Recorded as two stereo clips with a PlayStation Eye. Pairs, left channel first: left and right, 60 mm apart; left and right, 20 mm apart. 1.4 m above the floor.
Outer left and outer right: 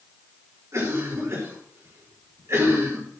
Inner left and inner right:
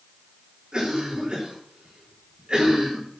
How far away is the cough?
About 6 m.